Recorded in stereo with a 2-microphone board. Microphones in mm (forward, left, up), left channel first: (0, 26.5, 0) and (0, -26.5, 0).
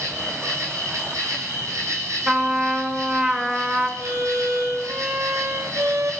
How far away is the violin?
About 5.5 m.